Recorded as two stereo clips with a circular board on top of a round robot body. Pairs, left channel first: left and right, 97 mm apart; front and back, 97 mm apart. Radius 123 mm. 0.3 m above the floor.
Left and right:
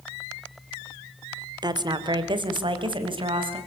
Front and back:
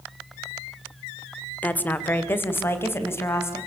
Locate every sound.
1.6 s a woman speaking: 70° right, 2.0 m; by 3.6 s 60° right, 4.5 m